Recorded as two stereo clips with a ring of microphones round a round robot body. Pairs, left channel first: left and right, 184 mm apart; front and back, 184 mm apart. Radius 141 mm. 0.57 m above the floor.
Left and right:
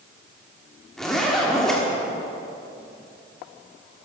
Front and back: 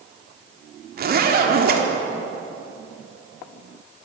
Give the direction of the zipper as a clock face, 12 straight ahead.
6 o'clock.